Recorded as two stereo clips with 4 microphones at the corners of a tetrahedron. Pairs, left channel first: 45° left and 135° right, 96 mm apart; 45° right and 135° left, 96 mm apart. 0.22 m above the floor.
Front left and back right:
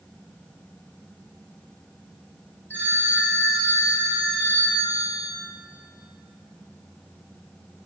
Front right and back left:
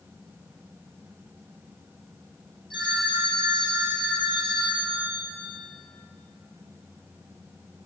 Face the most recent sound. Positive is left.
turn(degrees=-25)